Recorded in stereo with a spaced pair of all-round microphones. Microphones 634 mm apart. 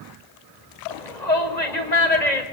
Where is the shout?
85° left, 5 m.